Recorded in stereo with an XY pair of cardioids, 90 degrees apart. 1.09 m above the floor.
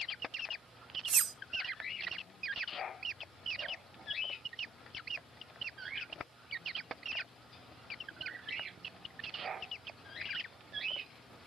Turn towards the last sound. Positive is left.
turn(degrees=-50)